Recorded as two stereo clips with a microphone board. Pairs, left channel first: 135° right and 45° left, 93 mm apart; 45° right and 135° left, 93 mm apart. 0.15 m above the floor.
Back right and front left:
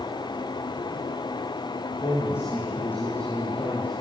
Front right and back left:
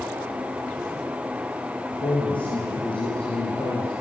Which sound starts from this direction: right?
A man speaking, at 1.9 s.